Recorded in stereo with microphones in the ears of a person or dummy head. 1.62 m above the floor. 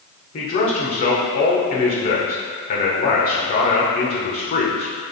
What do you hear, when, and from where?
0.3 s a man speaking: 50° left (ahead or behind), 1.5 m